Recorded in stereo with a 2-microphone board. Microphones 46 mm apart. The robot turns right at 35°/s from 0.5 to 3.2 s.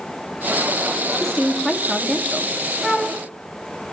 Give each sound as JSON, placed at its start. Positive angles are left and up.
{"t": 1.2, "sound": "a woman speaking", "azimuth_deg": 165, "distance_m": 2.5}
{"t": 2.8, "sound": "a flute", "side_deg": -5, "distance_m": 4.5}